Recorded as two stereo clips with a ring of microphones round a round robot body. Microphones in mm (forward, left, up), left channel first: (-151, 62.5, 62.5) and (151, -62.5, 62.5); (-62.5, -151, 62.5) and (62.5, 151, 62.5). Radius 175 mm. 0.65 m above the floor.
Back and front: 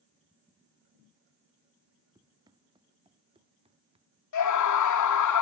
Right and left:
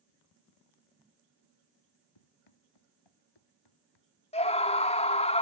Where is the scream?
Straight behind.